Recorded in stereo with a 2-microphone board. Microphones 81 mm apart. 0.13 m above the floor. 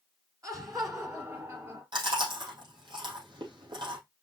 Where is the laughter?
40° right (ahead or behind), 1.9 m.